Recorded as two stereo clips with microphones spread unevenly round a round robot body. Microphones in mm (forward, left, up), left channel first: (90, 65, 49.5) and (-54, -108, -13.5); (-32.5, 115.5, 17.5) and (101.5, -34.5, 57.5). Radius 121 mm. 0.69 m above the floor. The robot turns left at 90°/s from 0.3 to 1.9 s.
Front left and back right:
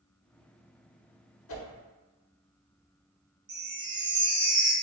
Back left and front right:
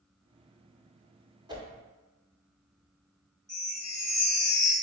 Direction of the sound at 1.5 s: 25° left.